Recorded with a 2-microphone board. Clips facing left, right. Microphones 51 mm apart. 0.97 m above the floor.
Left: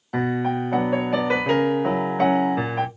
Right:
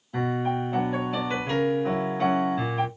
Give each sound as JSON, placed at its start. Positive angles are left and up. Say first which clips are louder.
{"t": 0.1, "sound": "a piano", "louder": "left 3 dB", "side_deg": 70, "distance_m": 0.7}